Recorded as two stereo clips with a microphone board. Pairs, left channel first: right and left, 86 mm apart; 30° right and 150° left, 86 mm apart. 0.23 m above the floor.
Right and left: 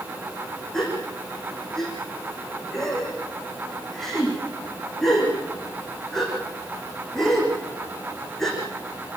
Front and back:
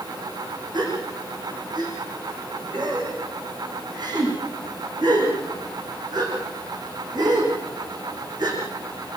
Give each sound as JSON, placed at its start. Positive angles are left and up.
{"t": 0.7, "sound": "a gasp", "azimuth_deg": -175, "distance_m": 7.0}